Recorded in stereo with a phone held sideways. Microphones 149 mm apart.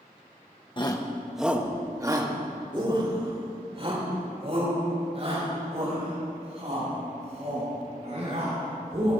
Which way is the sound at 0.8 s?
35° left (ahead or behind).